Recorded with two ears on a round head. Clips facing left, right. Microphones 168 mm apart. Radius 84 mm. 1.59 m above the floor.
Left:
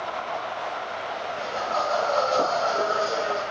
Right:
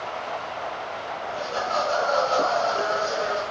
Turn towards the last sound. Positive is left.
turn(degrees=45)  # may be behind; listen again after turning